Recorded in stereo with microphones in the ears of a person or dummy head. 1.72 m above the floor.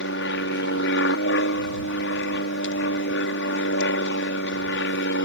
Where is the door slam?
No door slam in this recording.